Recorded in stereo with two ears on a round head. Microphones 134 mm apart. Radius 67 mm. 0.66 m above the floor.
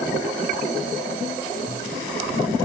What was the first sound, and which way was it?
Only background noise.